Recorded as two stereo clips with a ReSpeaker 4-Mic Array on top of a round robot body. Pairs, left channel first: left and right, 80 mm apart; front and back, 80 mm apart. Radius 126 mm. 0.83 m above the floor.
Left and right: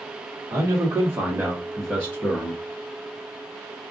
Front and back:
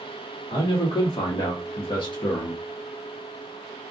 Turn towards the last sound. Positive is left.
turn(degrees=40)